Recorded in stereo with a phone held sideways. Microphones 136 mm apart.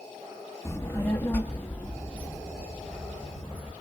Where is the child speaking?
20° left (ahead or behind), 1.0 m; by 3.7 s 5° left (ahead or behind), 4 m.